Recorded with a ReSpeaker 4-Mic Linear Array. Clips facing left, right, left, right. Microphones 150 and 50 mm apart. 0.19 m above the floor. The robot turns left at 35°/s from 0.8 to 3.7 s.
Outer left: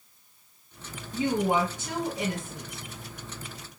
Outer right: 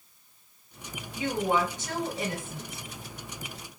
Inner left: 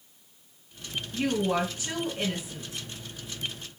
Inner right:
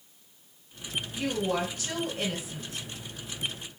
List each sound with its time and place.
1.1 s a woman speaking: 45° left, 1.6 m; by 2.8 s 15° right, 1.6 m